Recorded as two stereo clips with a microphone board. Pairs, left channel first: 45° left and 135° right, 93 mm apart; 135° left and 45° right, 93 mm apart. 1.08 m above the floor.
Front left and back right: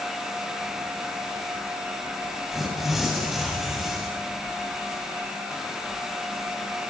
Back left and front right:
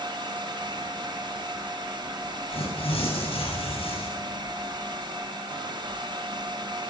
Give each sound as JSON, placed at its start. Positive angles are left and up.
{"t": 2.5, "sound": "tearing paper", "azimuth_deg": 140, "distance_m": 7.5}